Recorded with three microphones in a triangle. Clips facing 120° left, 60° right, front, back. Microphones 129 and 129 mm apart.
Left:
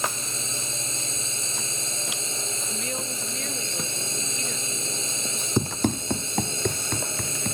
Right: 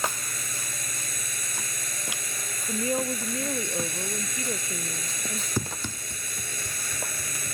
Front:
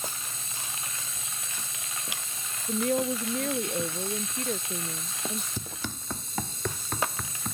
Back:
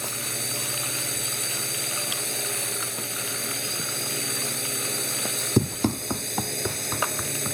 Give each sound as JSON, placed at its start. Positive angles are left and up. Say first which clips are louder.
{"t": 0.0, "sound": "a drone", "louder": "left 1 dB, back 6 dB", "azimuth_deg": -175}
{"t": 2.7, "sound": "a woman speaking", "louder": "right 10 dB, front 9 dB", "azimuth_deg": 5}
{"t": 5.6, "sound": "running footsteps", "louder": "left 10 dB, back 15 dB", "azimuth_deg": -175}